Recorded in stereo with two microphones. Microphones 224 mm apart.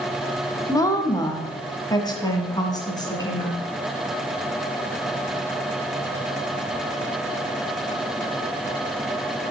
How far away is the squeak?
No squeak in this recording.